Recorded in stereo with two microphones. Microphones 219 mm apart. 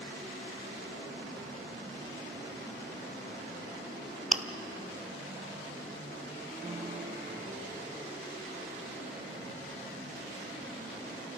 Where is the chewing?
35° right (ahead or behind), 0.9 m.